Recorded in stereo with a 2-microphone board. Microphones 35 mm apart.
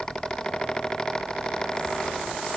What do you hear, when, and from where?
Only background noise.